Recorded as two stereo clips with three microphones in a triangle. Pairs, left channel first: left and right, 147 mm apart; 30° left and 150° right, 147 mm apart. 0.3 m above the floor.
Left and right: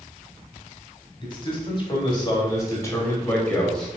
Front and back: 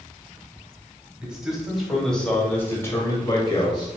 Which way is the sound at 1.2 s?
130° left.